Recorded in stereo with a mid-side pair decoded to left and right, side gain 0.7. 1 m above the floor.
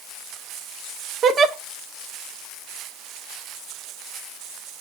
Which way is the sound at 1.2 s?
40° right.